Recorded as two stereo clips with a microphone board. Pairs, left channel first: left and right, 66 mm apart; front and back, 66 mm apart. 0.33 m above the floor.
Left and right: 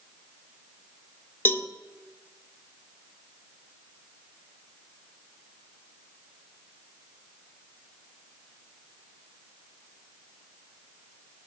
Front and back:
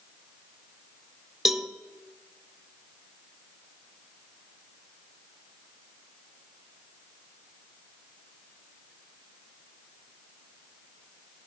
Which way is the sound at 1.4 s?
100° left.